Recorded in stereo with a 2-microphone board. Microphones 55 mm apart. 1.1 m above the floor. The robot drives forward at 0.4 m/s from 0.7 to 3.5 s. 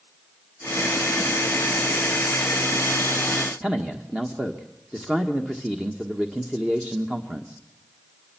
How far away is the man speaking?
About 1.5 m.